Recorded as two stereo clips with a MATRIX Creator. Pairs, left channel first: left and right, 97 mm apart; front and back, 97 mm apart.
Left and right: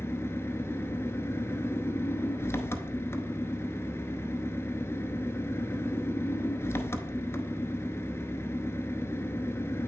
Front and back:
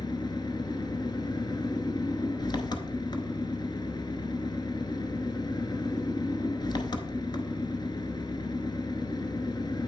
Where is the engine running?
30° left, 0.8 m.